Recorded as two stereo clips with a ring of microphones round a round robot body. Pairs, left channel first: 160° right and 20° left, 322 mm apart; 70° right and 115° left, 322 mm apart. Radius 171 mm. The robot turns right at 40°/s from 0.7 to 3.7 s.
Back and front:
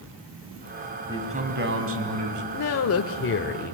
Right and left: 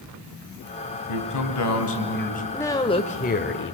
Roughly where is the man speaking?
Ahead right.